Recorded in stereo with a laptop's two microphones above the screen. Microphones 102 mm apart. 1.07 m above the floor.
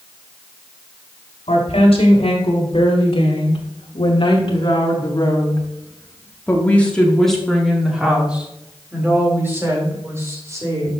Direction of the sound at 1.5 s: 80° left.